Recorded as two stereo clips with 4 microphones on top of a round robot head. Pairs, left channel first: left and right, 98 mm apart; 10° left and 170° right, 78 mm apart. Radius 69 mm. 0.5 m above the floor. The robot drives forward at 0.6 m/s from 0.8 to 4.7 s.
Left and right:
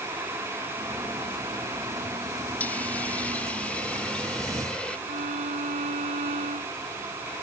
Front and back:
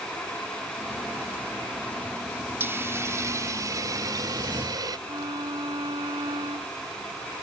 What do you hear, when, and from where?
2.6 s a hiss: 155° left; by 5.0 s 170° left
5.1 s a violin: 115° right